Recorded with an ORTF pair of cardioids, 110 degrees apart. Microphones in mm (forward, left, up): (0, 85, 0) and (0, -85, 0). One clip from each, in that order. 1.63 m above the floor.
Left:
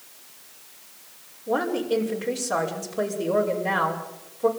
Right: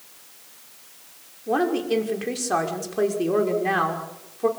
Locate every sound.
1.5 s a woman speaking: 30° right, 5.5 m